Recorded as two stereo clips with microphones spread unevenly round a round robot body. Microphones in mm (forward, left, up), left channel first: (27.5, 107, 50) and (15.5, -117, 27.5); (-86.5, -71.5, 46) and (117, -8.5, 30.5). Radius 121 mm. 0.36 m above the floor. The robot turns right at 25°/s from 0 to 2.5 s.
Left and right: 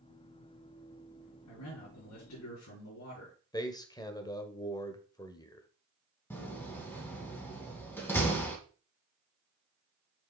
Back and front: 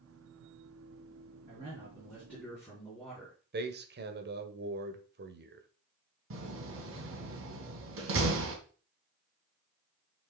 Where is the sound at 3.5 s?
15° left, 1.5 m.